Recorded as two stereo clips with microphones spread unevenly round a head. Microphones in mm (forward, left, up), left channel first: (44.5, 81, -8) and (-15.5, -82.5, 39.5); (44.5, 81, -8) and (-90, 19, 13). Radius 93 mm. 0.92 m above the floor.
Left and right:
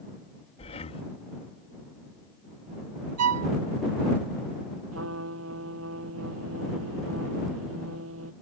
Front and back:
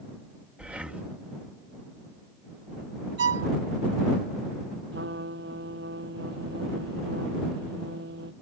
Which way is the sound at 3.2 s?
120° right.